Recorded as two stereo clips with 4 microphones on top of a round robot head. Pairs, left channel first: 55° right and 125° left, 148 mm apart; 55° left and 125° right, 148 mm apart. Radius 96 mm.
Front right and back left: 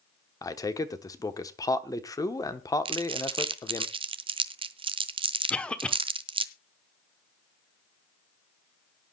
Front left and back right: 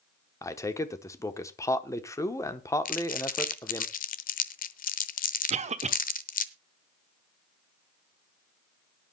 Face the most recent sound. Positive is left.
turn(degrees=-135)